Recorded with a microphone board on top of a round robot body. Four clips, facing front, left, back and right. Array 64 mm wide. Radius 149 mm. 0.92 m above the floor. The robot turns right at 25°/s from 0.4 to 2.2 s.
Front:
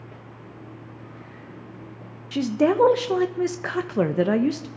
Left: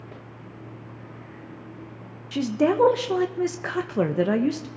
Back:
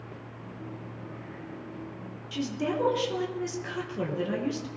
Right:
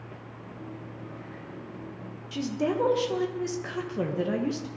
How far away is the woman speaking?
About 1.0 m.